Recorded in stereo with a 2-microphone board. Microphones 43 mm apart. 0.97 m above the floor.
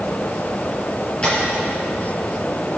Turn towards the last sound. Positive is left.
turn(degrees=25)  # may be behind; listen again after turning